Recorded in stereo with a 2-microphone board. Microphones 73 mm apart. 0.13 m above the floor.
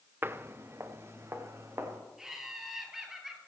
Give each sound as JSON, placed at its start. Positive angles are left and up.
{"t": 0.2, "sound": "footsteps", "side_deg": -30, "distance_m": 0.8}
{"t": 2.2, "sound": "laughter", "side_deg": -5, "distance_m": 3.0}